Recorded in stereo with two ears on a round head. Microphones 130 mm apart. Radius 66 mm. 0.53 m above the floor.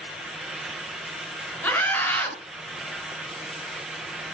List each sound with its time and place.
1.6 s a scream: 10° left (ahead or behind), 6.5 m